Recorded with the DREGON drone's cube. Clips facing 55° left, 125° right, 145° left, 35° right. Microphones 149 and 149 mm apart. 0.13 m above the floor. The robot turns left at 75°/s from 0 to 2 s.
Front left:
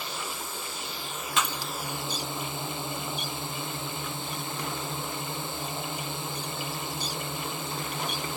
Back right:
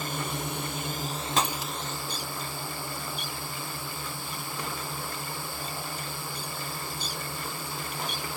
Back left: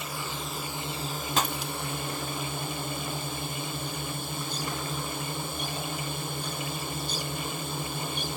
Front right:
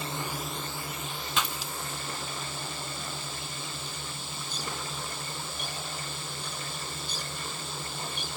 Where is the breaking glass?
170° right; by 1.7 s 160° left.